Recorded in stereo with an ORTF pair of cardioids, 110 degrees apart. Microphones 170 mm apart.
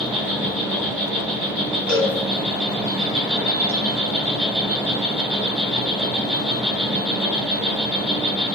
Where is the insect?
Straight ahead, 1.2 m.